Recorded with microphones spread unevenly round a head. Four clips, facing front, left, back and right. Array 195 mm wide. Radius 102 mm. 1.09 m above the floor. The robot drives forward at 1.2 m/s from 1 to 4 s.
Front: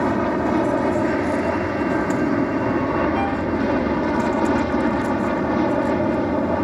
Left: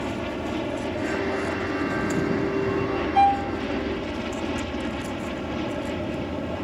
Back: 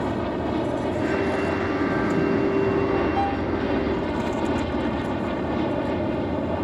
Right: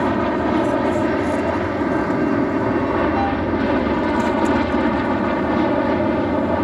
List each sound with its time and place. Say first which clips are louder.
0.0 s an aircraft: right 10 dB, front 6 dB; 45° right; by 6.7 s 50° right
3.1 s a violin: even, front 2 dB; 105° left; by 3.5 s 115° left